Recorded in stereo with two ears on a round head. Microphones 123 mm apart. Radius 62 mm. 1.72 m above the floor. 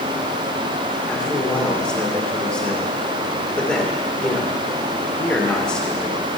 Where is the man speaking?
10° left (ahead or behind), 2.5 m.